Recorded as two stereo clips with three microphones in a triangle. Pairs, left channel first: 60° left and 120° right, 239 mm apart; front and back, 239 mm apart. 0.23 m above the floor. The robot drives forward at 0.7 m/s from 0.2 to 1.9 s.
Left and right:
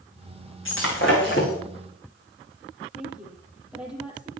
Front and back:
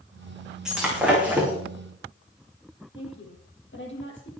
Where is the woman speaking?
35° right, 8.5 m.